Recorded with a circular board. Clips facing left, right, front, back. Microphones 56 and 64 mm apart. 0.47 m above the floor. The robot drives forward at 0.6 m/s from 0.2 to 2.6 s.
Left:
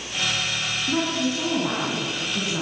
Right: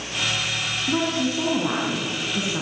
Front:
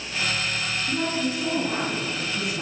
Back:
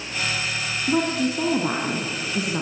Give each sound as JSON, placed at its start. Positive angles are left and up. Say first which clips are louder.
{"t": 0.9, "sound": "a woman speaking", "louder": "right 1 dB, back 6 dB", "azimuth_deg": -170, "distance_m": 3.5}